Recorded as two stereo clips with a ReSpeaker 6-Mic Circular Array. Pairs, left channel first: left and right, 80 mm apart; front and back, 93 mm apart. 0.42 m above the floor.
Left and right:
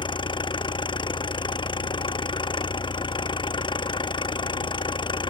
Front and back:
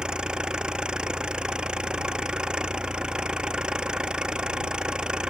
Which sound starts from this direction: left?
An engine running, at 0.0 s.